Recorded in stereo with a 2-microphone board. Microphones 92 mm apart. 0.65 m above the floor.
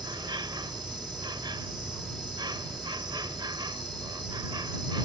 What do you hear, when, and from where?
0.0 s an insect: 55° right (ahead or behind)